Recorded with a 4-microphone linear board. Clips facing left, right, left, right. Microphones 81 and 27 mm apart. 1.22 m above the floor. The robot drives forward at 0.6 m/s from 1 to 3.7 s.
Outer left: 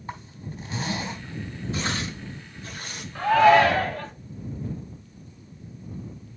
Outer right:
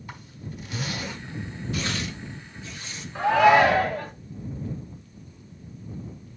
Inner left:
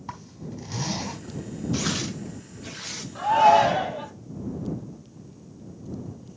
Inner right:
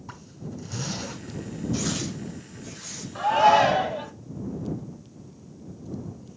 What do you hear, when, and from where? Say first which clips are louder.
0.1 s a zipper: outer left 4 dB, inner left 2 dB; 30° left (ahead or behind), 4 m
1.7 s tearing paper: outer left 1 dB, inner left 2 dB; 30° left (ahead or behind), 1.4 m; by 3.0 s 60° left (ahead or behind), 0.9 m
3.1 s a shout: outer left 1 dB, inner left 1 dB; 15° right (ahead or behind), 1.9 m